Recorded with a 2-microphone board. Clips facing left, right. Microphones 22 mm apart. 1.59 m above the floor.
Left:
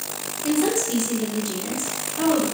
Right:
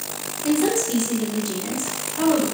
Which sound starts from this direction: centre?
A woman speaking, at 0.4 s.